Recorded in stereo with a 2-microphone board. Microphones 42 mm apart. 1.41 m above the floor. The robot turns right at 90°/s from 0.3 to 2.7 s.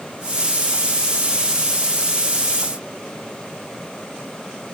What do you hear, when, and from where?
Only background noise.